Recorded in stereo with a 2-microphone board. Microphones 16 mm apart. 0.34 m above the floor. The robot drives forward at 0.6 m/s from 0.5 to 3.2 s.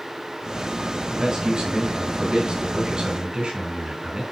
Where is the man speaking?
55° right (ahead or behind), 2.5 m.